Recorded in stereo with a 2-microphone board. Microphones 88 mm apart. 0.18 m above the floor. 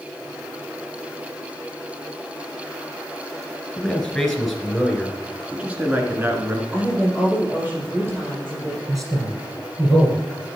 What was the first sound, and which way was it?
A man speaking, 10° left (ahead or behind).